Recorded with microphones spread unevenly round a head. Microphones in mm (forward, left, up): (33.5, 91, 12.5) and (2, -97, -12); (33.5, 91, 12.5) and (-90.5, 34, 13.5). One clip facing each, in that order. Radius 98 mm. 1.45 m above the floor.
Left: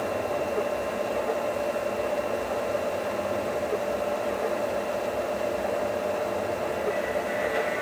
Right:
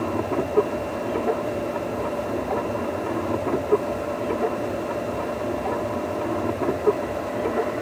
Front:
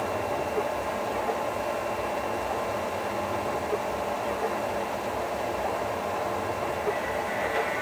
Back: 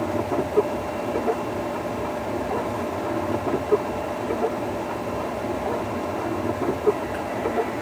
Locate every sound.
0.0 s a machine running: 120° right